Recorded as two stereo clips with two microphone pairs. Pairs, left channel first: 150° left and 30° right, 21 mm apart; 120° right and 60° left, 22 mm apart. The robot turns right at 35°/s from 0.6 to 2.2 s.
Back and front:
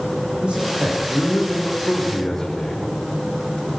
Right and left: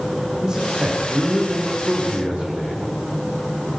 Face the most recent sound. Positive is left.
turn(degrees=65)